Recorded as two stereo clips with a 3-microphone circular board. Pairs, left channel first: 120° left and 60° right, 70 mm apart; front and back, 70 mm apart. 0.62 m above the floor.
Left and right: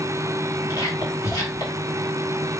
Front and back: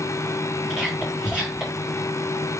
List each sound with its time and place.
0.7 s whispering: 110° left, 2.5 m